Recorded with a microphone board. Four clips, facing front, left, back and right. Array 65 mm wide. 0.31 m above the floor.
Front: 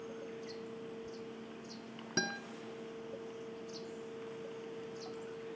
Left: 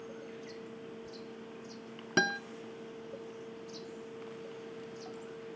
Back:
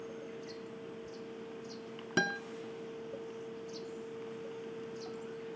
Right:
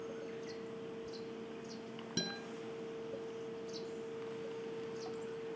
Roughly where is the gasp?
I don't hear a gasp.